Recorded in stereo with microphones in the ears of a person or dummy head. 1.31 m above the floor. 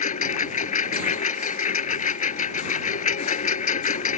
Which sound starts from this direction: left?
A lawn mower, at 0.0 s.